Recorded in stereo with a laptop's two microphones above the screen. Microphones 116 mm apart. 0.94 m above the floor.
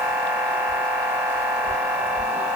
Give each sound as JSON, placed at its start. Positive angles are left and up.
{"t": 0.0, "sound": "a machine running", "side_deg": -15, "distance_m": 2.5}